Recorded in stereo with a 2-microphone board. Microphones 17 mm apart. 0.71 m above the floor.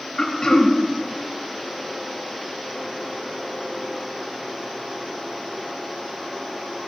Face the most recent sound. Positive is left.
turn(degrees=40)  # may be behind; listen again after turning